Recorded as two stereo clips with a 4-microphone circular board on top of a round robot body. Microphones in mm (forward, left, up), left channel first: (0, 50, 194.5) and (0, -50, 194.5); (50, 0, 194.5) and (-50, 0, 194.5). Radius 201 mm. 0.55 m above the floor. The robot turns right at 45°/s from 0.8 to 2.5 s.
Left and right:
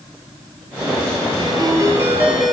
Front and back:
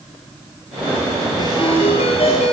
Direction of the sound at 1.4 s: 50° right.